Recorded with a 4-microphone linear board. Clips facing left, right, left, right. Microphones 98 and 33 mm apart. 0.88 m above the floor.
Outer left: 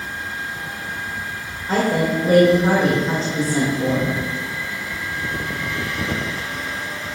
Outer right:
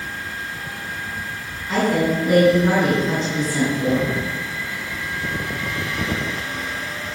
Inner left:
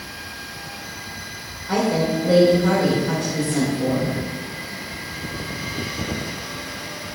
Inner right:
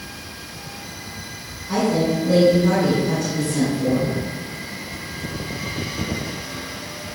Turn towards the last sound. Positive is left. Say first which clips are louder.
# even, inner right 1 dB
turn(degrees=35)  # may be behind; listen again after turning